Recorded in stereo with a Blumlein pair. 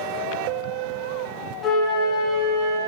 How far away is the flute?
About 1.1 m.